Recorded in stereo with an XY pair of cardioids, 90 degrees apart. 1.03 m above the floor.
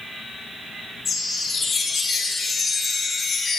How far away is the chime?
About 2.0 m.